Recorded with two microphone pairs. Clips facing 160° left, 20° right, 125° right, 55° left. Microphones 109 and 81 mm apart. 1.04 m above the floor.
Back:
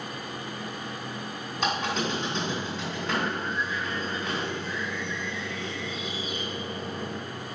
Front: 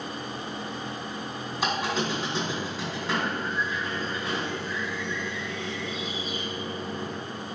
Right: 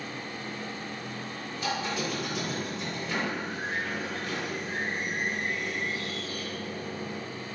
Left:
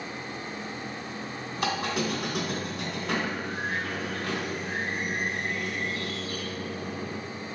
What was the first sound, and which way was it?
A squeak, 65° left.